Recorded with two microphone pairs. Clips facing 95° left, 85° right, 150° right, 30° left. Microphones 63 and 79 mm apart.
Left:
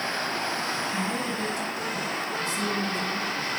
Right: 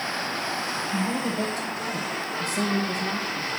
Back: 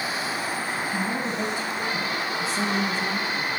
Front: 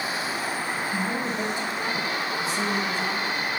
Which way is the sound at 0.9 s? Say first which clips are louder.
Right 2 dB, even; 45° right.